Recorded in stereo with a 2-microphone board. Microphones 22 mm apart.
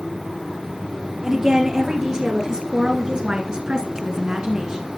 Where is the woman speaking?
25° right (ahead or behind), 3 m; by 4.9 s 35° right (ahead or behind), 1.7 m.